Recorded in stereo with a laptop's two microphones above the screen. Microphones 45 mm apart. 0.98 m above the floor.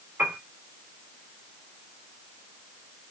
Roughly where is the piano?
Right.